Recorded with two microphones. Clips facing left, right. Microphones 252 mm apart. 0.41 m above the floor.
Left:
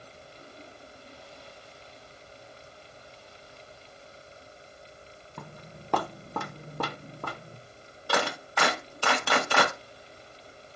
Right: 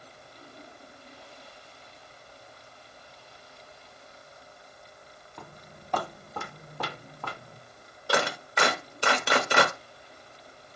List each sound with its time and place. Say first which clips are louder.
5.4 s footsteps: left 2 dB; 60° left (ahead or behind), 1.1 m; by 7.6 s 35° left (ahead or behind), 1.4 m
8.1 s a clap: right 1 dB; 20° right (ahead or behind), 1.2 m